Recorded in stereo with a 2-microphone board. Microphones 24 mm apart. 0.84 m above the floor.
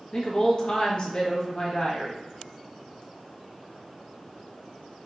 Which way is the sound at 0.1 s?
35° left (ahead or behind).